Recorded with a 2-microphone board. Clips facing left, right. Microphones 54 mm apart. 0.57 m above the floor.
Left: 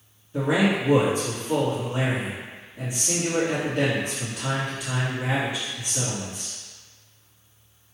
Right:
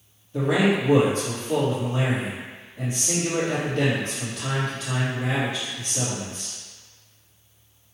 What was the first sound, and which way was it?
A man speaking, 15° left (ahead or behind).